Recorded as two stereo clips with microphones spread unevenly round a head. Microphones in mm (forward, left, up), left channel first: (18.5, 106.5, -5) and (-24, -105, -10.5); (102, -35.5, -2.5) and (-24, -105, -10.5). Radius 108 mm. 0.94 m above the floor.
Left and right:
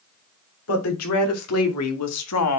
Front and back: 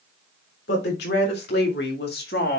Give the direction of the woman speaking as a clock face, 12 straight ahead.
10 o'clock.